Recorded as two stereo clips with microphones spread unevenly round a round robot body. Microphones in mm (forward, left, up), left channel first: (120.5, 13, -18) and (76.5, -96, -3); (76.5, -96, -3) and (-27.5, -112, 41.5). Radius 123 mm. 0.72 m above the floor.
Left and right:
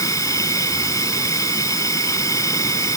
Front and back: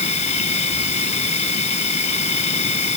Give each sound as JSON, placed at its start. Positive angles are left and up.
{"t": 0.0, "sound": "an insect", "azimuth_deg": 5}